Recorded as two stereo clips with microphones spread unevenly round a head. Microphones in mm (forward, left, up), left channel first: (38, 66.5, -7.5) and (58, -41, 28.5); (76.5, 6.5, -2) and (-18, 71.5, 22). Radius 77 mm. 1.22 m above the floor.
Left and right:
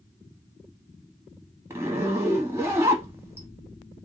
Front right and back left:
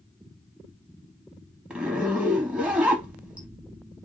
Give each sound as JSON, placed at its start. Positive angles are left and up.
{"t": 1.7, "sound": "a zipper", "azimuth_deg": -140, "distance_m": 0.6}